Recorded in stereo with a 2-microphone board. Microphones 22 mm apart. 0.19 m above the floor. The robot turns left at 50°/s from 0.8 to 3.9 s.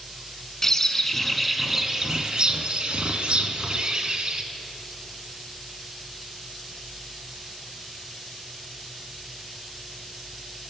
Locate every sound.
0.6 s a bird: 30° left, 0.8 m; by 4.4 s 125° right, 0.8 m